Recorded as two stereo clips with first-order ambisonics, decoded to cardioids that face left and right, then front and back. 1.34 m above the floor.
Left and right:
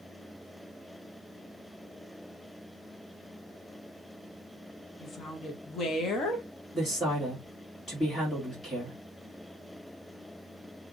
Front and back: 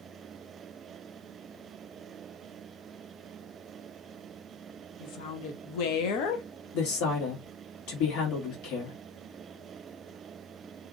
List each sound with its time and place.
5.0 s a woman speaking: 25° left, 0.8 m
6.7 s a woman speaking: 15° left, 1.7 m